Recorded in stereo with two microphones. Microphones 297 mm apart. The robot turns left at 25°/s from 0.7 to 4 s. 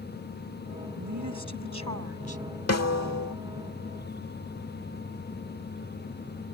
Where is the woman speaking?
85° right; by 2.4 s 120° right.